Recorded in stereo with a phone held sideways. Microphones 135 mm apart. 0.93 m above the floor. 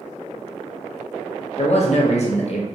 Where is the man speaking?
55° left (ahead or behind), 0.7 m.